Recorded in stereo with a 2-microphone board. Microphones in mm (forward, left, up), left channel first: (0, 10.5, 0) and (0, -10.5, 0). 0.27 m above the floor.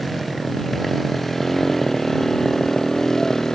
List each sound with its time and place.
0.0 s a motorcycle: 5° left (ahead or behind); by 3.5 s 20° left (ahead or behind)